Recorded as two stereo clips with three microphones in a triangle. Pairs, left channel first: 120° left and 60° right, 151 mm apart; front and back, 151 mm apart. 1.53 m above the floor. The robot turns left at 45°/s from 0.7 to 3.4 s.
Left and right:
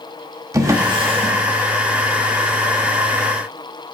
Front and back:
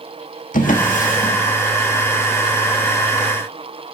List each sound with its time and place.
0.5 s a drawer: 5° left, 1.4 m; by 1.4 s 25° right, 1.4 m